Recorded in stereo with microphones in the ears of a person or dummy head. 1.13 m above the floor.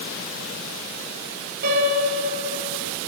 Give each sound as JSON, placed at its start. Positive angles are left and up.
{"t": 1.6, "sound": "a piano", "side_deg": -55, "distance_m": 7.5}